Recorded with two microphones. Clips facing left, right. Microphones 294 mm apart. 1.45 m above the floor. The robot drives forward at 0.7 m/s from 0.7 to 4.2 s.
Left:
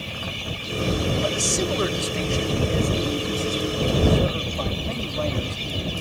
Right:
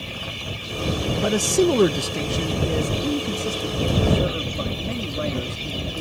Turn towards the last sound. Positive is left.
turn(degrees=-20)  # may be behind; listen again after turning